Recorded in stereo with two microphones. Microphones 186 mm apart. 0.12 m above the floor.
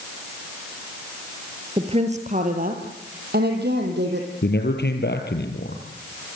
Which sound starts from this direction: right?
A woman speaking, at 1.8 s.